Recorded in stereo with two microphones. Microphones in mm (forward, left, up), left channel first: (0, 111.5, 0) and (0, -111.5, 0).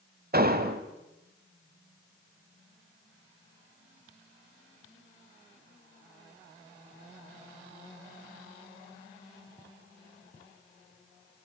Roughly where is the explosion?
Right.